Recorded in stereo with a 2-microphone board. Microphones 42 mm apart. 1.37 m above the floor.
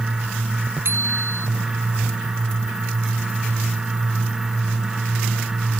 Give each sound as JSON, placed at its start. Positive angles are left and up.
{"t": 0.8, "sound": "a bicycle bell", "side_deg": -60}